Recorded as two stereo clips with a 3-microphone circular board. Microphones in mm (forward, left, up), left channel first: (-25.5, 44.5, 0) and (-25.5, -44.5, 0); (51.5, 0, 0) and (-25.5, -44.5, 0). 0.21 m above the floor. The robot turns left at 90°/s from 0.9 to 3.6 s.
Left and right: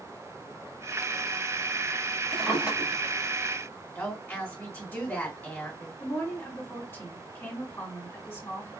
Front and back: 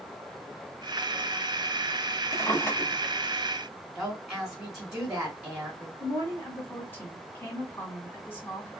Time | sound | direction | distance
2.3 | a drawer | 5° left | 0.9 m
4.0 | a woman speaking | 135° left | 1.5 m
6.0 | a woman speaking | 65° left | 1.6 m